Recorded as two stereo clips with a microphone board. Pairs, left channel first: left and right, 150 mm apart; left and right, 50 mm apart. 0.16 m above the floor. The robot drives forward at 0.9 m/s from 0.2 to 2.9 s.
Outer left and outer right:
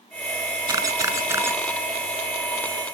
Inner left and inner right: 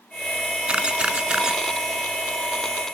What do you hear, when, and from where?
0.7 s a camera shutter: 25° right (ahead or behind), 1.0 m; by 1.6 s 15° right (ahead or behind), 1.5 m